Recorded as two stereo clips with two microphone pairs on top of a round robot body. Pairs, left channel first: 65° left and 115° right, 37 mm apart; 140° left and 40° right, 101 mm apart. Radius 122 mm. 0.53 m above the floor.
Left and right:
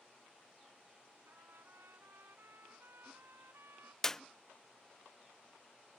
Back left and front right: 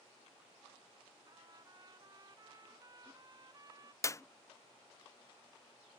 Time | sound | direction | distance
1.3 | a trumpet | 95° right | ?
4.0 | a clap | 130° left | ?